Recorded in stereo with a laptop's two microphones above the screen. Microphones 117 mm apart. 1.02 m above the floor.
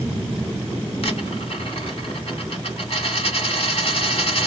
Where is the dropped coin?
60° left (ahead or behind), 1.6 m.